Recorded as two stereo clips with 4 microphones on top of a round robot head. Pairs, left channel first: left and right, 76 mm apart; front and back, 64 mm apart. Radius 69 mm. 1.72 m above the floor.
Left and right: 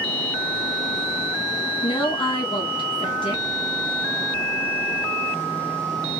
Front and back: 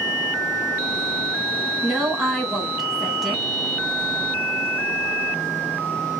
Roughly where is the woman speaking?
Left.